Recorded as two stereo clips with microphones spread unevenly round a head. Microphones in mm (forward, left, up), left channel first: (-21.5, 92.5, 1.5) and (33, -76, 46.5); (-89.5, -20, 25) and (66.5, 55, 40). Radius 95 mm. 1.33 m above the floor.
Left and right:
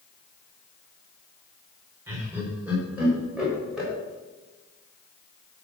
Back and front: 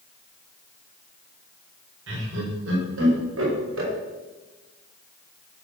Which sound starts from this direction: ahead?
Laughter, at 2.1 s.